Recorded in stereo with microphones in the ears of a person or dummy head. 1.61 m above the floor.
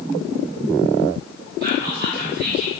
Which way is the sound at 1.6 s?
50° right (ahead or behind).